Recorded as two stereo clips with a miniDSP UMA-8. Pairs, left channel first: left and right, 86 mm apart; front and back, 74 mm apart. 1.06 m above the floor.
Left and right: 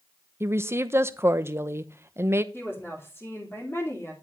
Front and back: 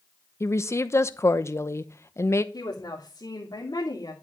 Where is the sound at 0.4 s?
40° right, 0.8 m.